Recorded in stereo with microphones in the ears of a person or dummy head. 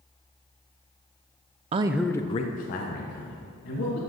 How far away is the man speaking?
About 0.5 m.